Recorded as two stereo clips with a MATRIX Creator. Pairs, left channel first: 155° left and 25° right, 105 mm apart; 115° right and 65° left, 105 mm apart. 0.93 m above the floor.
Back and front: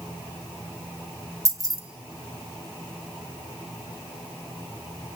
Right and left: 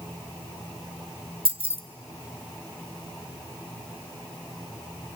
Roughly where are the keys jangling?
Ahead left.